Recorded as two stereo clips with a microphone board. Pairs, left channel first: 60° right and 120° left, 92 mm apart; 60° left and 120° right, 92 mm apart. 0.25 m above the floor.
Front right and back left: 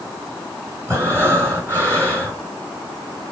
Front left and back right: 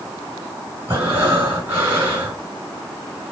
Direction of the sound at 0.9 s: Straight behind.